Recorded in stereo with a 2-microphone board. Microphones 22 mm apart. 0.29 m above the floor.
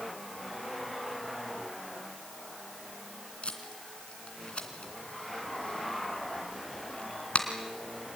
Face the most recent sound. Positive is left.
turn(degrees=60)  # may be behind; listen again after turning